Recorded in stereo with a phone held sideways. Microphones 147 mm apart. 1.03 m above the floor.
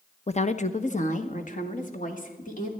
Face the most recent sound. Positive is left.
turn(degrees=55)  # may be behind; listen again after turning